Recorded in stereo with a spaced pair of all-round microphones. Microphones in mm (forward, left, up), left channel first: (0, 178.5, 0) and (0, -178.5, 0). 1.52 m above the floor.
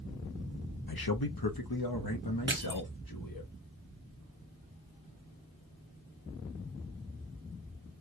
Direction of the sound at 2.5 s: 30° right (ahead or behind).